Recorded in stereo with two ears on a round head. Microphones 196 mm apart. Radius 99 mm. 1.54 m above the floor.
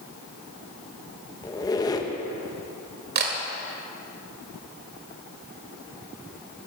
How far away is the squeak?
About 0.8 m.